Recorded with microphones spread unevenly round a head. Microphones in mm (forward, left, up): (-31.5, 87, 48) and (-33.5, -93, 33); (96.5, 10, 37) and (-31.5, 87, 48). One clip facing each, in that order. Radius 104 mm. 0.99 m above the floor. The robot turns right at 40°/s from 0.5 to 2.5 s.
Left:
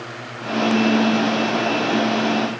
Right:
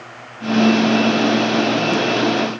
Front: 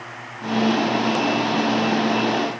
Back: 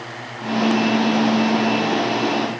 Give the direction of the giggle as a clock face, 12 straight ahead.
No giggle in this recording.